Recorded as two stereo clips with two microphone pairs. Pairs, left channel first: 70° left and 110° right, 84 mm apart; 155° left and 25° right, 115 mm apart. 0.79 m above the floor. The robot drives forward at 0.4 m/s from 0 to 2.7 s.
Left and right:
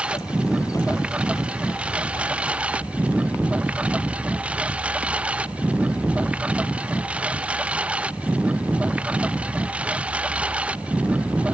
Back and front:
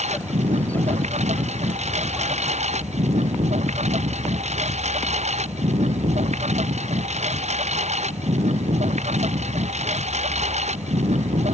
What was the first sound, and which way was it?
A lawn mower, 35° right.